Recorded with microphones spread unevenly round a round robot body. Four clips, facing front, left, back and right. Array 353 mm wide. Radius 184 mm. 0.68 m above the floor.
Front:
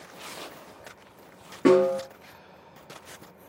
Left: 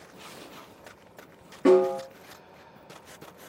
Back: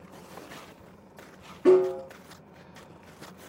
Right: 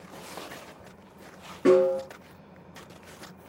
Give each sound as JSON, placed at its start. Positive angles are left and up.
{"t": 1.6, "sound": "a snare drum", "azimuth_deg": -5, "distance_m": 10.0}